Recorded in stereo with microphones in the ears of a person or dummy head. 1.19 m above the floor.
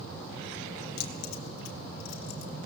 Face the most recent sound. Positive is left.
turn(degrees=80)